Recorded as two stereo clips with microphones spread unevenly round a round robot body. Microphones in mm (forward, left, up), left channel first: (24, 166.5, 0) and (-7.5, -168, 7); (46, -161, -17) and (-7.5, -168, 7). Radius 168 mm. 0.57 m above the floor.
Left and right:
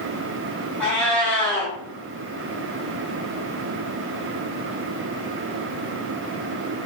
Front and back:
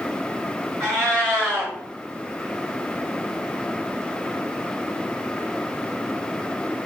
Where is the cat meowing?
170° left, 1.2 m.